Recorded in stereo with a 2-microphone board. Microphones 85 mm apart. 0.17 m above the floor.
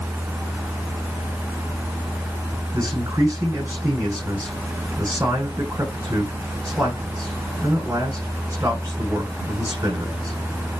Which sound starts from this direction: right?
A man speaking, at 2.7 s.